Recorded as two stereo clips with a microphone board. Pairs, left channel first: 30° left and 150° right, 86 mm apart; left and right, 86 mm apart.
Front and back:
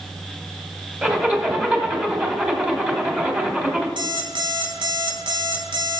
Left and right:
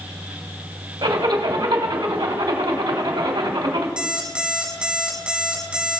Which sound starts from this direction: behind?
An alarm clock, at 4.0 s.